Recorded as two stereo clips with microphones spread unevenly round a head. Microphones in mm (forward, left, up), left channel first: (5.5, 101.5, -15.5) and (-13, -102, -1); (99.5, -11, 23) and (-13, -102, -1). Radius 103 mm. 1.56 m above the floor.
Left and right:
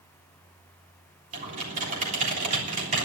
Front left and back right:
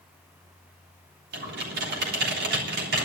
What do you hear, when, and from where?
1.3 s typing on a keyboard: 150° right, 3.5 m